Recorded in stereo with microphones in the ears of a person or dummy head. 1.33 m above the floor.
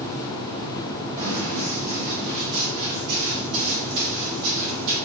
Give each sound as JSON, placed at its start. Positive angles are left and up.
{"t": 1.2, "sound": "running footsteps", "side_deg": -30, "distance_m": 1.8}